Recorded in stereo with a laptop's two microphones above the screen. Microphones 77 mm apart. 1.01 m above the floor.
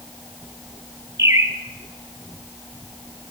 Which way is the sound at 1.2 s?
40° right (ahead or behind).